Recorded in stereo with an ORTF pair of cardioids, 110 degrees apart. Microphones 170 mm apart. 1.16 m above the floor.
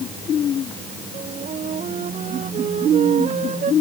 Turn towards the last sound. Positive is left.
turn(degrees=-40)